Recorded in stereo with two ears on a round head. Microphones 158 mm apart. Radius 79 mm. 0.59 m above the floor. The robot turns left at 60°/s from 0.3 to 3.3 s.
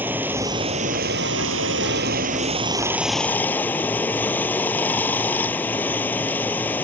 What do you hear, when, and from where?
0.0 s running water: 10° right; by 6.8 s 170° left